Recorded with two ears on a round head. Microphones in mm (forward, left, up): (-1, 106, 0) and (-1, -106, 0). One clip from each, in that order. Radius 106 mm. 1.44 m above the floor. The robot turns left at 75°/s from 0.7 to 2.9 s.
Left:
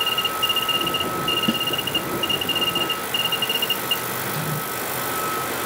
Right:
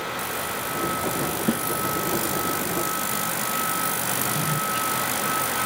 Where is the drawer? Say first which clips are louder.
Right 1 dB; 75° right (ahead or behind).